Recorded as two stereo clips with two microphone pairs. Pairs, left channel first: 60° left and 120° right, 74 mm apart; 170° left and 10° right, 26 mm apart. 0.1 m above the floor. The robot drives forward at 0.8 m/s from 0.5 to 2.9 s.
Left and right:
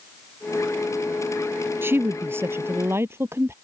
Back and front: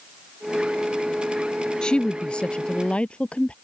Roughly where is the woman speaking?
Behind.